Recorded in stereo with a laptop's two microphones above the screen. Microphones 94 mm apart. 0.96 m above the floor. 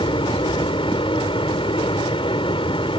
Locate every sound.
0.0 s a fan: 70° left (ahead or behind)